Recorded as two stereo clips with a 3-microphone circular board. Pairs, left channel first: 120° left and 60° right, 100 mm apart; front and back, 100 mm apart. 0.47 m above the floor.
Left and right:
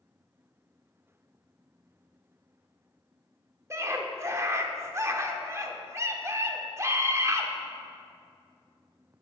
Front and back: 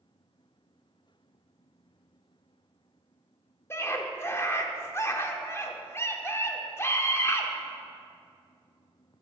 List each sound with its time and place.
3.7 s a scream: 35° right, 0.8 m